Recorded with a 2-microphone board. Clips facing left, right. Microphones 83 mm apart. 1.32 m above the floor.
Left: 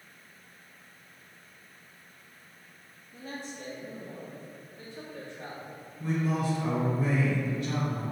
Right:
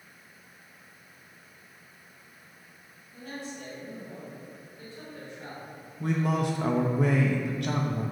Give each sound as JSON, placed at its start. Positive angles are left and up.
{"t": 3.1, "sound": "a man speaking", "side_deg": 50, "distance_m": 2.5}
{"t": 6.0, "sound": "a man speaking", "side_deg": -65, "distance_m": 0.9}